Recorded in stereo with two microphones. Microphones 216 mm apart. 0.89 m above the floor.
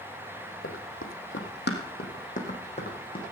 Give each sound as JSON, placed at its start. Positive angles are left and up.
{"t": 0.6, "sound": "running footsteps", "side_deg": 70, "distance_m": 2.5}